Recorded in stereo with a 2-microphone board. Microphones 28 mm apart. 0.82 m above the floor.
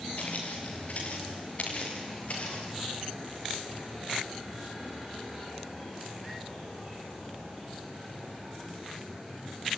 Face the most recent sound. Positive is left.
turn(degrees=50)  # may be behind; listen again after turning